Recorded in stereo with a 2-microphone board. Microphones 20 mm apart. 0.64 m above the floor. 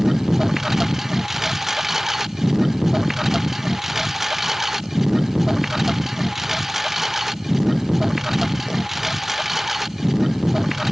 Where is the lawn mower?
20° right (ahead or behind); by 10.9 s 15° right (ahead or behind).